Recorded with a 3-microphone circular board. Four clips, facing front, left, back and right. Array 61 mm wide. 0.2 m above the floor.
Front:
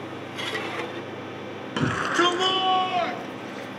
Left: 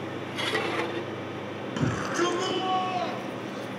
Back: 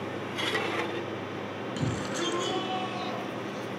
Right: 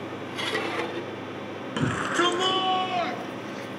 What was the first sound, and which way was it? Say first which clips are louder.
A shout: right 3 dB, front 11 dB; 15° right.